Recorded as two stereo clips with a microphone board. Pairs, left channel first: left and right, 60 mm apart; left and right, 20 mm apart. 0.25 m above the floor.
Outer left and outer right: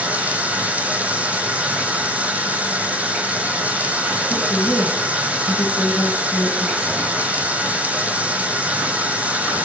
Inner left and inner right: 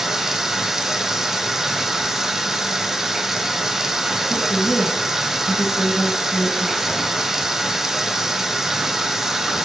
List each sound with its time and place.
0.0 s running water: 25° right (ahead or behind), 0.8 m
4.3 s a woman speaking: 30° left (ahead or behind), 1.5 m